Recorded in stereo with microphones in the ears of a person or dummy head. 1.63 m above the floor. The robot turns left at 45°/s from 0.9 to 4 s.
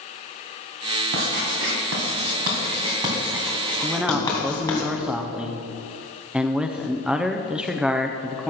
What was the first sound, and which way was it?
Writing, 55° right (ahead or behind).